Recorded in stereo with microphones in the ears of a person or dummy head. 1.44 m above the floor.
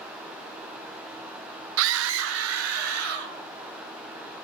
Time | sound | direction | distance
1.8 | a scream | 75° right (ahead or behind) | 0.6 m